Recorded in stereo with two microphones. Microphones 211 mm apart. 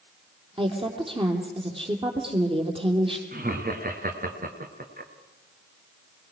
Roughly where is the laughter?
Right.